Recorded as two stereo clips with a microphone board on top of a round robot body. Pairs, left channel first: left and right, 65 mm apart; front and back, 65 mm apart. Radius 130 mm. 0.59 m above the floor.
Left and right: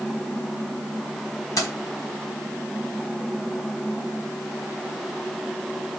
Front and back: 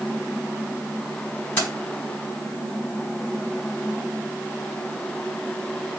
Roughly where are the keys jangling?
Left.